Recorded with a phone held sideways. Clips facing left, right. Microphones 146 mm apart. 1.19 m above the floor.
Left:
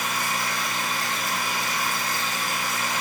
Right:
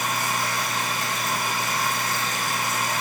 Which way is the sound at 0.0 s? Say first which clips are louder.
Right 2 dB; 45° right (ahead or behind).